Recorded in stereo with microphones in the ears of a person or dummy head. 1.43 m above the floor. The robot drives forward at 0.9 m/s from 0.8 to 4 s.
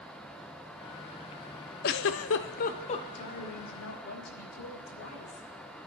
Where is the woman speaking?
85° left, 3.5 m; by 5.5 s 70° left (ahead or behind), 3.5 m.